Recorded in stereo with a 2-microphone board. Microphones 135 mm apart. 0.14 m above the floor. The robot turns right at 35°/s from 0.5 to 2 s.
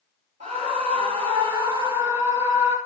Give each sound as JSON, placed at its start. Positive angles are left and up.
{"t": 0.4, "sound": "a scream", "azimuth_deg": -80, "distance_m": 3.0}